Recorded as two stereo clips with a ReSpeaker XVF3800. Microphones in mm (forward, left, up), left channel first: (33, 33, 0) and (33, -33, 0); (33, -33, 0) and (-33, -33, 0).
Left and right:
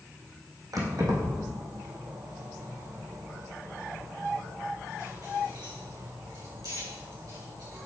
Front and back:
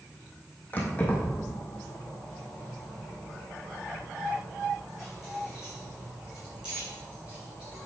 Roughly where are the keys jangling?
Ahead right.